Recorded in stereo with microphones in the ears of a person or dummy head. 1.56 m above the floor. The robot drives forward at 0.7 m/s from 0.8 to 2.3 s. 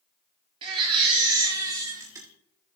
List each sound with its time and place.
0.6 s a baby crying: 20° right (ahead or behind), 1.0 m; by 2.3 s 10° right (ahead or behind), 1.6 m